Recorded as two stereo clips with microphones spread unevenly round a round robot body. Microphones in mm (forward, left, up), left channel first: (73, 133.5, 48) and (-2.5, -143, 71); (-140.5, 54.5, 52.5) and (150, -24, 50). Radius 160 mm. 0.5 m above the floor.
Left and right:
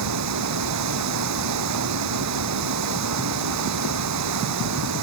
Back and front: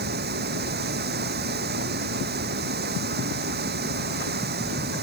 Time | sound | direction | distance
0.0 | running water | 75° right | ?